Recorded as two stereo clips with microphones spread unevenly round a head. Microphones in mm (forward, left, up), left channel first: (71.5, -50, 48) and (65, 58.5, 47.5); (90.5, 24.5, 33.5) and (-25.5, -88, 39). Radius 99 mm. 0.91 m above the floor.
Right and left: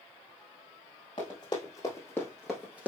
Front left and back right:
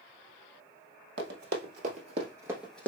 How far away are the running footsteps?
About 1.6 m.